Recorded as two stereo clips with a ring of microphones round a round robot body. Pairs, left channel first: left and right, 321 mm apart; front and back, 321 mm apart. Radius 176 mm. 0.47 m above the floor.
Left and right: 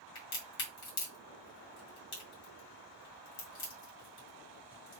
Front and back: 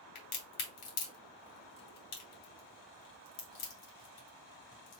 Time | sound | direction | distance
0.1 | a crack | 30° left | 2.0 m